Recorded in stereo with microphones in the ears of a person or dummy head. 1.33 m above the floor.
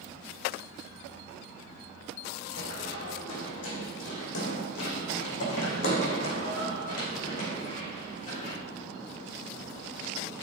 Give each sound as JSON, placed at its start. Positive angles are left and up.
{"t": 2.6, "sound": "running footsteps", "side_deg": 75, "distance_m": 4.5}